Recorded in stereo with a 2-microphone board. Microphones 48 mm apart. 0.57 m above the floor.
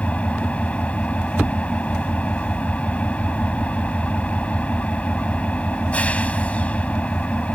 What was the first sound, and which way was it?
An engine running, 25° left (ahead or behind).